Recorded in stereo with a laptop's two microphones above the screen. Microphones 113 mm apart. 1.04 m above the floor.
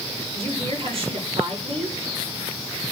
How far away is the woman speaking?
About 5 m.